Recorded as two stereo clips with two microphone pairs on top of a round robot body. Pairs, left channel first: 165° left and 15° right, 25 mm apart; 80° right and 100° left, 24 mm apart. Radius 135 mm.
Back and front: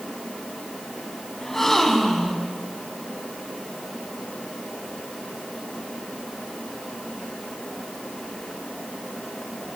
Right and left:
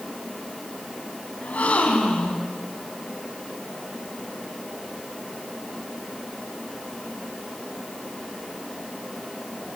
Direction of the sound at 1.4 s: 110° right.